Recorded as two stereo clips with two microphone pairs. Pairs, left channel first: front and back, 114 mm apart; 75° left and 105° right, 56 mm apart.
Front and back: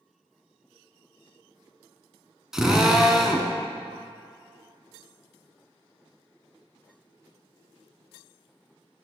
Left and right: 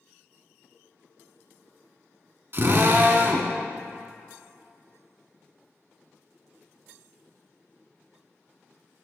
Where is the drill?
95° right, 0.7 m.